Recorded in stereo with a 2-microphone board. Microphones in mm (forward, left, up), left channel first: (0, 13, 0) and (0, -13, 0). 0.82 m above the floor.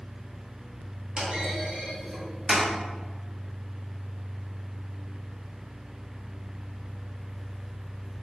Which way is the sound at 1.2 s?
35° right (ahead or behind).